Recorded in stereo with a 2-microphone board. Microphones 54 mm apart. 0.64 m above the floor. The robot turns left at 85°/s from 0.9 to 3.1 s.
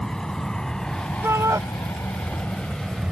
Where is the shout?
50° right; by 1.6 s 85° right.